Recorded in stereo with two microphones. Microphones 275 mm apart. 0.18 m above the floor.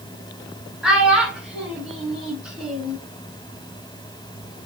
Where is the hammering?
I don't hear hammering.